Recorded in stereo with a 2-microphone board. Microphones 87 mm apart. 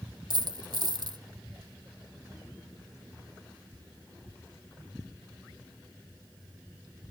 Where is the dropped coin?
55° right (ahead or behind), 0.6 m.